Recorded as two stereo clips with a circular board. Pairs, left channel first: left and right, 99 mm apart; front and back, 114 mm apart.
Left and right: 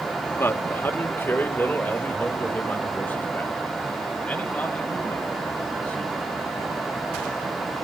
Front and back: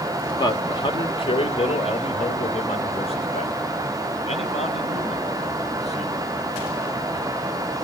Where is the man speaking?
35° left, 1.3 m; by 6.3 s 10° left, 4 m.